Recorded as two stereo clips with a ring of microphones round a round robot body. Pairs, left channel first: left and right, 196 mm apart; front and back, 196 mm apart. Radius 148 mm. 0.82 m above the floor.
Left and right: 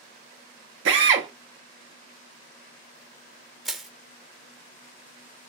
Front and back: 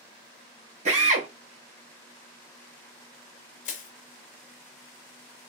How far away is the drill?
About 0.9 m.